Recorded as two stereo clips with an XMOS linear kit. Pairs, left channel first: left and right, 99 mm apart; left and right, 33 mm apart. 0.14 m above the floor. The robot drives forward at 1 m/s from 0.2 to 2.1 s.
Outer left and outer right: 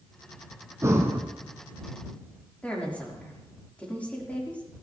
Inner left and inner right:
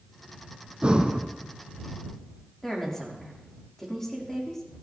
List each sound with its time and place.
0.8 s breathing: 30° right (ahead or behind), 2.0 m; by 1.2 s 25° right (ahead or behind), 2.5 m
2.6 s a woman speaking: 15° left (ahead or behind), 6.5 m